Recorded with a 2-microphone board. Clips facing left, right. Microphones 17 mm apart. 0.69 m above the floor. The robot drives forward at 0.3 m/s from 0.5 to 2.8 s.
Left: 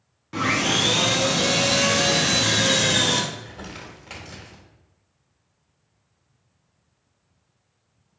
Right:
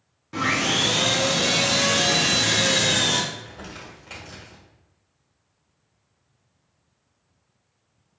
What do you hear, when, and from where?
0.3 s sawing: 15° left (ahead or behind), 1.1 m; by 3.2 s 10° left (ahead or behind), 1.7 m
3.3 s crumpling: 20° left (ahead or behind), 1.0 m